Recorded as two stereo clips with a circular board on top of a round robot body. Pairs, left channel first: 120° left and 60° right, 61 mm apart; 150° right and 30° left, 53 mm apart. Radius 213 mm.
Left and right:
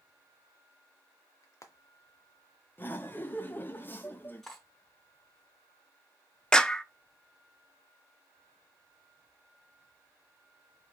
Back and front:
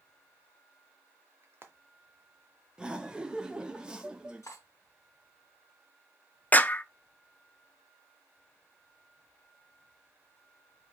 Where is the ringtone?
I don't hear a ringtone.